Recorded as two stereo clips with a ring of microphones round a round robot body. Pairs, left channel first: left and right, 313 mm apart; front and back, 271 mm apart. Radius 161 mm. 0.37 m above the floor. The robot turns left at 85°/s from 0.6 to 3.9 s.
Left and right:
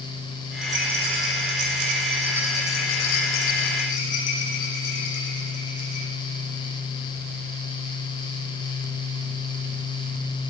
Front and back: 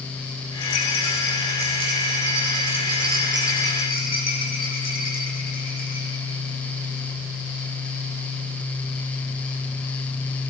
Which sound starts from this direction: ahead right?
A rattle, at 0.6 s.